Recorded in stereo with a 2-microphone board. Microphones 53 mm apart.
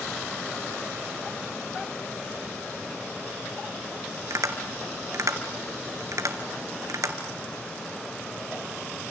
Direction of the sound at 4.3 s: 75° right (ahead or behind).